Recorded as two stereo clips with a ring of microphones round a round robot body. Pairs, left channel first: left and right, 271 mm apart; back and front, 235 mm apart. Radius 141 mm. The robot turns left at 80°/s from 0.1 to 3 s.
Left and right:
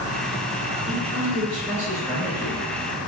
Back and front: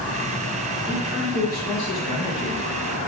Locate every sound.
0.9 s a man speaking: 30° right, 1.2 m; by 3.1 s 160° left, 1.2 m